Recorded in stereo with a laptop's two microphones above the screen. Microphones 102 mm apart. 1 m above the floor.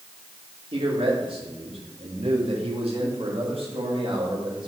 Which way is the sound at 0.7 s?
65° right (ahead or behind).